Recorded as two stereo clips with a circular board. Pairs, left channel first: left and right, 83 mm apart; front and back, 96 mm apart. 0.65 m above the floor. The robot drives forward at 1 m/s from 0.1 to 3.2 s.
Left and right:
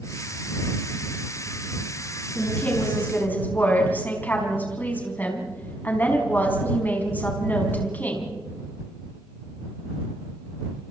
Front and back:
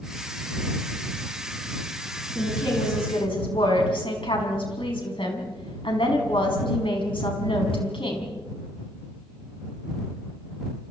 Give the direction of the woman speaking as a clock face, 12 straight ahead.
11 o'clock.